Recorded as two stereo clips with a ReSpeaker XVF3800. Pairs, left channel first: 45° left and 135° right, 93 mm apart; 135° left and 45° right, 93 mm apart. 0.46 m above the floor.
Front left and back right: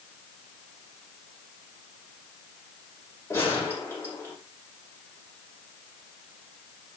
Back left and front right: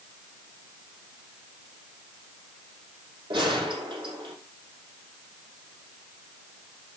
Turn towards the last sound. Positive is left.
turn(degrees=-15)